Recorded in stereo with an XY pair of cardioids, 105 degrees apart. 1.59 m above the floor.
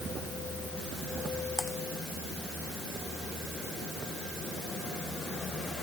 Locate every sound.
1.6 s typing on a keyboard: 15° left